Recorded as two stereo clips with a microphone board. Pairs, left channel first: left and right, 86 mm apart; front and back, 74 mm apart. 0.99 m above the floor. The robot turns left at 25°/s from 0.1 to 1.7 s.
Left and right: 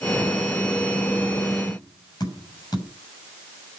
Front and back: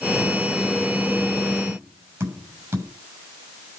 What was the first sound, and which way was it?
Tapping, 135° left.